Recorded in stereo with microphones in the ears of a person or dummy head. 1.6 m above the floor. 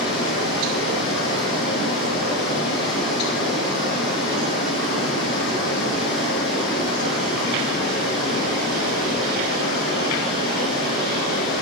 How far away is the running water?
About 5 m.